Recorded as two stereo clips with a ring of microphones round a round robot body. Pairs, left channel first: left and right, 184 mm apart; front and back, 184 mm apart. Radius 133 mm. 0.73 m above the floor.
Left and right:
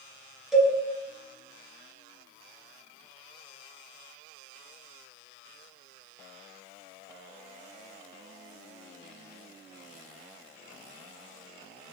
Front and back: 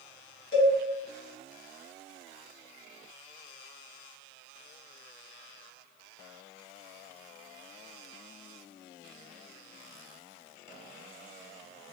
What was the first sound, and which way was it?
A cowbell, straight ahead.